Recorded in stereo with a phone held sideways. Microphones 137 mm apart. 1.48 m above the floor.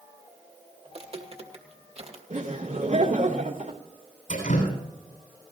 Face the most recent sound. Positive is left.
turn(degrees=85)